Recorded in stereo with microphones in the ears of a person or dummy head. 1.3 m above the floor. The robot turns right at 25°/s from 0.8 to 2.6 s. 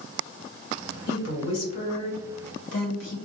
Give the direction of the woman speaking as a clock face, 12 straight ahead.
10 o'clock.